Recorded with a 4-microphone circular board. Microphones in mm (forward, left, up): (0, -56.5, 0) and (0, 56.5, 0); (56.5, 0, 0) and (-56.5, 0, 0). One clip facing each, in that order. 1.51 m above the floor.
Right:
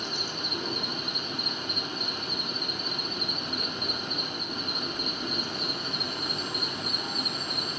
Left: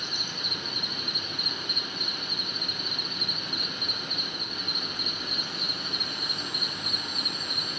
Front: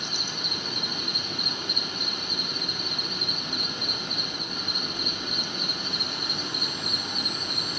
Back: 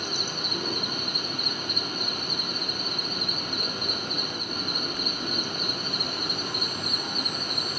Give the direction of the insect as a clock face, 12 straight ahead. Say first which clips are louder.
Right 3 dB, back 3 dB; 5 o'clock.